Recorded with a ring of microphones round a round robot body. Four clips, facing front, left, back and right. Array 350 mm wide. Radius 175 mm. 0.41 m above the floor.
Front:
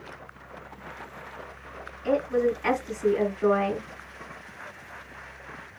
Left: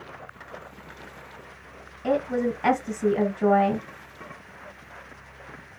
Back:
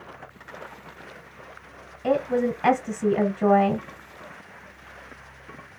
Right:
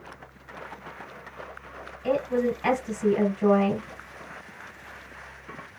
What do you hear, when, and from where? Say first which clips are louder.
2.0 s a woman speaking: even, back 1 dB; 160° left, 2.5 m